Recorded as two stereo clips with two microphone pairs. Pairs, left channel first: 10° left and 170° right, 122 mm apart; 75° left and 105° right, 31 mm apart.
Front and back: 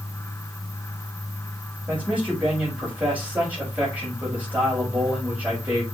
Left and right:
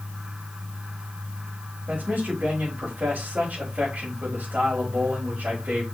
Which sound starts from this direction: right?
A man speaking, at 1.9 s.